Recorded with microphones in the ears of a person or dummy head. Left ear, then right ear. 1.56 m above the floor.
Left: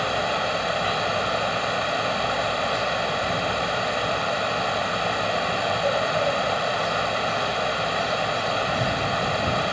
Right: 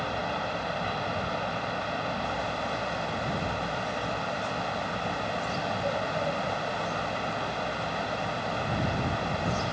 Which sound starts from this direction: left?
A fan, at 0.0 s.